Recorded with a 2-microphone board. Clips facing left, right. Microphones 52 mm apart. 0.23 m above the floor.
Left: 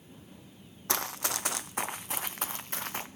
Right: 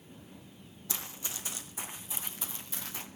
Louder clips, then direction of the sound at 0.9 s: Left 10 dB; 65° left (ahead or behind).